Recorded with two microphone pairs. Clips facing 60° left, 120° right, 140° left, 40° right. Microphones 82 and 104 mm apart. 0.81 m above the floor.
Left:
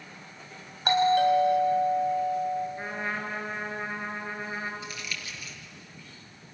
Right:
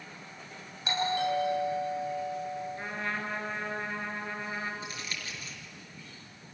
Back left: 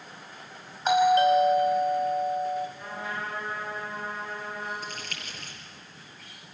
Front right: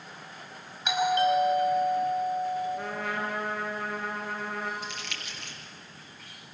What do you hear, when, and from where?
0.8 s a doorbell: 90° left, 5.5 m
2.8 s a trumpet: 15° right, 4 m
4.8 s crumpling: 175° right, 4.5 m